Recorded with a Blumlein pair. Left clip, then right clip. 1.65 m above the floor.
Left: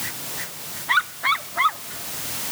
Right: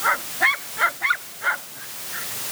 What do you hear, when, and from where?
Only background noise.